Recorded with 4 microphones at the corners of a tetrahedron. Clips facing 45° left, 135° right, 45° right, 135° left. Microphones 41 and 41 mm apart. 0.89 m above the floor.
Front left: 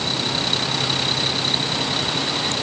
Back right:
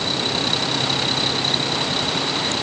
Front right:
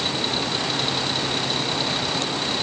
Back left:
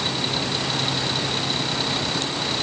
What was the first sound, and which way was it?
Only background noise.